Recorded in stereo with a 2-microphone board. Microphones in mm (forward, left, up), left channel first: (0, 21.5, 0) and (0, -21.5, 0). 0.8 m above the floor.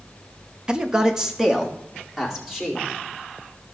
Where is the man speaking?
20° right (ahead or behind), 0.7 m; by 2.8 s 5° right (ahead or behind), 2.5 m.